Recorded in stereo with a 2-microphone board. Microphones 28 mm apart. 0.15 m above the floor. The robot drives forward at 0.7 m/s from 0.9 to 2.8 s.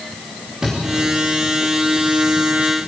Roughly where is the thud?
Right.